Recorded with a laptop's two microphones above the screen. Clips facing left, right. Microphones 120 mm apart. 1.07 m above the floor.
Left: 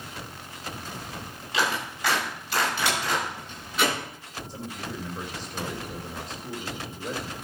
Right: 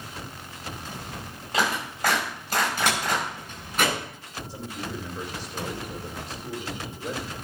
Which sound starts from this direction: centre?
A man speaking, at 4.5 s.